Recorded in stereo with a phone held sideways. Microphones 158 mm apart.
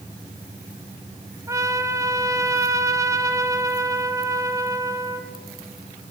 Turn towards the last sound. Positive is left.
turn(degrees=-20)  # may be behind; listen again after turning